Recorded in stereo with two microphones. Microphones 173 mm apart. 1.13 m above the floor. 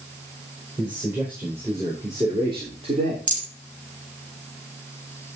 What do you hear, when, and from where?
0.8 s a man speaking: 5° right (ahead or behind), 4.5 m; by 3.2 s 40° right (ahead or behind), 3 m
3.3 s a rattle: 45° right (ahead or behind), 3.5 m